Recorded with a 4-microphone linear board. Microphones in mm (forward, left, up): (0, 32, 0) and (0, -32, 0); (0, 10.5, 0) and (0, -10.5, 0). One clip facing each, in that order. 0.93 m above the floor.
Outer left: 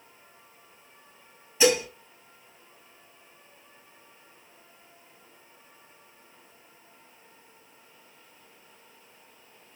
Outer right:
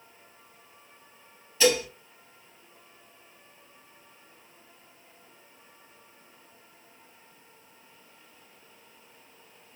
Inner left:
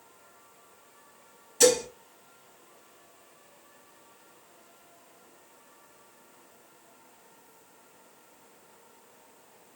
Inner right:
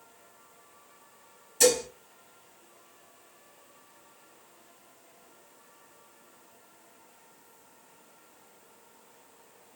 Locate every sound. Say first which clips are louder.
1.6 s dishes clattering: outer left 1 dB, inner left 2 dB; 15° left (ahead or behind), 3.5 m